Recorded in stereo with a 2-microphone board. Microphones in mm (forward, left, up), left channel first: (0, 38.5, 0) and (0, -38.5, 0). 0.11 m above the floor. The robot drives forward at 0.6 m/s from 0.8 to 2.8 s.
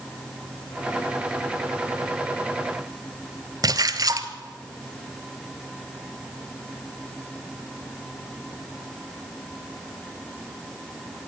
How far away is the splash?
About 1.0 m.